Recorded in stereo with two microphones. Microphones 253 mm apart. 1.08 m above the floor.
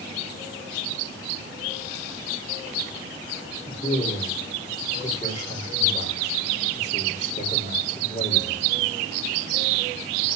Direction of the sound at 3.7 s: 25° left (ahead or behind).